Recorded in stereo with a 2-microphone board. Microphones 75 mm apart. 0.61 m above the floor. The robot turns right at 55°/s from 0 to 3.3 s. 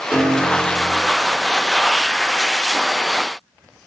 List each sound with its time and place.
0.1 s a piano: 165° right, 1.1 m; by 0.9 s 125° right, 1.1 m